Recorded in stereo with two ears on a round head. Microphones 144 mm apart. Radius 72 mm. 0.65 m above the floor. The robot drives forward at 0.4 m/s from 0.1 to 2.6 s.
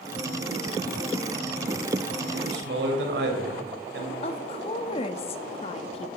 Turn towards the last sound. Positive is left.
turn(degrees=35)  # may be behind; listen again after turning